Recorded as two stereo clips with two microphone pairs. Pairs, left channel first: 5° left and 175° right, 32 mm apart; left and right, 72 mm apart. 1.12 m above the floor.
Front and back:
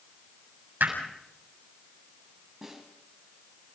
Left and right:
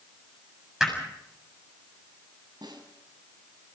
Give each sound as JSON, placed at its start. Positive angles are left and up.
{"t": 0.8, "sound": "hammering", "azimuth_deg": 180, "distance_m": 7.0}
{"t": 2.6, "sound": "a snare drum", "azimuth_deg": -95, "distance_m": 5.0}